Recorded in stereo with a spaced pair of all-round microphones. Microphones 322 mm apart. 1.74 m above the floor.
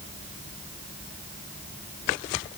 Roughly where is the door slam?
No door slam in this recording.